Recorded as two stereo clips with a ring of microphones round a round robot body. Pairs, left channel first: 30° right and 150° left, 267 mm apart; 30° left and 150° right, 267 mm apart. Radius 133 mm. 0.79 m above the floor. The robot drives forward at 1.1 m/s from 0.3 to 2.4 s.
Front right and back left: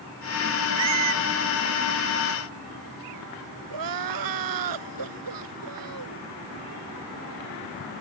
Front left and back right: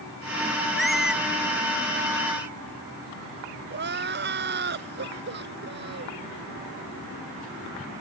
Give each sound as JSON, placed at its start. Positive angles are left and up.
{"t": 0.8, "sound": "a squeak", "azimuth_deg": 120}
{"t": 3.7, "sound": "crying", "azimuth_deg": 155}